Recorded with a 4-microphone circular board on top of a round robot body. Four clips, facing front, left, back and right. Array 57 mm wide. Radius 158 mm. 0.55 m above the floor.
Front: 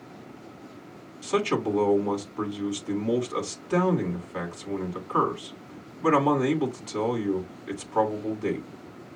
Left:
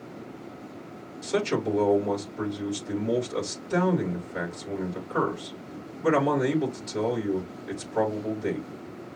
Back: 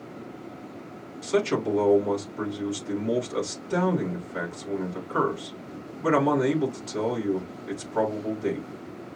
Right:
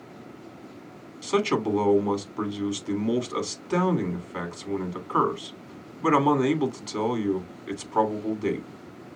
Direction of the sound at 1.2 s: 70° right.